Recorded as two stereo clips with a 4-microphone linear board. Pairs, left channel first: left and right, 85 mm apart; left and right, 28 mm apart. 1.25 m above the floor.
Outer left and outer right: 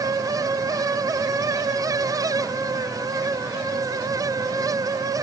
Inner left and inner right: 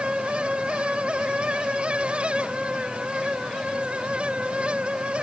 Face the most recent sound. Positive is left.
No sound to turn to.